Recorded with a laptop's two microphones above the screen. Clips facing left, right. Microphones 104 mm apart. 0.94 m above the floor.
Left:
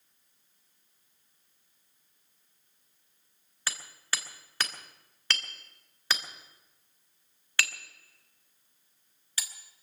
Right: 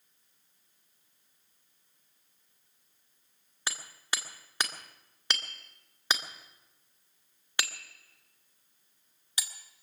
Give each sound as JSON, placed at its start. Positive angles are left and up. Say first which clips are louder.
{"t": 3.7, "sound": "hammering", "louder": "even", "side_deg": -20, "distance_m": 1.4}